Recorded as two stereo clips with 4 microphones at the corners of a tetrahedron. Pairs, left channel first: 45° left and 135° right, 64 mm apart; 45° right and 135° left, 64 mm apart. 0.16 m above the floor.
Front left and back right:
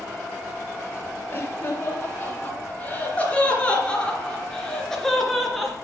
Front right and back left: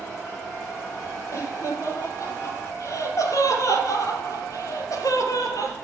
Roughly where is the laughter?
Ahead.